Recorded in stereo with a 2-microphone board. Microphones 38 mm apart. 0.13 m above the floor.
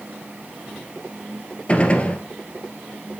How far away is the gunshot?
About 2 m.